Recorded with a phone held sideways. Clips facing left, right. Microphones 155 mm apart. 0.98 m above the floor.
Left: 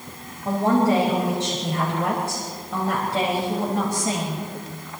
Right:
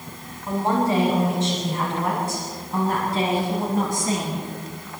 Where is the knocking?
I don't hear knocking.